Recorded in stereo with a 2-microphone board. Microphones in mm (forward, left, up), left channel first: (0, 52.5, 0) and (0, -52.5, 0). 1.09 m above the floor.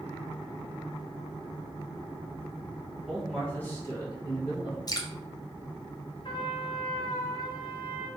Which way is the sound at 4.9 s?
35° left (ahead or behind).